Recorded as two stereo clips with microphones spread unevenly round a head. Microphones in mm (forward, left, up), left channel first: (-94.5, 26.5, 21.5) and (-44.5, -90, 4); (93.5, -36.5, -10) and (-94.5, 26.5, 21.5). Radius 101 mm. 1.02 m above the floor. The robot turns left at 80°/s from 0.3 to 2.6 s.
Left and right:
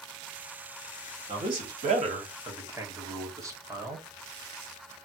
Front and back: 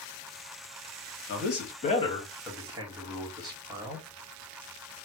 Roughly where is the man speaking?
Ahead.